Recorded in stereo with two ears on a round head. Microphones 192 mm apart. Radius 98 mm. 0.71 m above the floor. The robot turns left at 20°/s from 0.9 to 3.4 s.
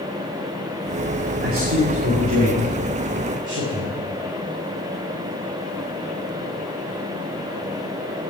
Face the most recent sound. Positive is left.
turn(degrees=-55)  # may be behind; listen again after turning